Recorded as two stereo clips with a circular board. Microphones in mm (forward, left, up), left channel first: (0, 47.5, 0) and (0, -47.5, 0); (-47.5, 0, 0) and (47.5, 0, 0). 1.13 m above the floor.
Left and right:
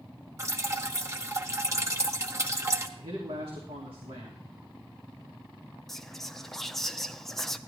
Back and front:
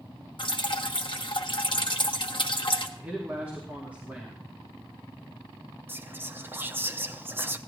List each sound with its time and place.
0.4 s dripping: 150° right, 1.0 m
3.0 s a man speaking: 75° right, 2.5 m
5.9 s whispering: 10° left, 0.6 m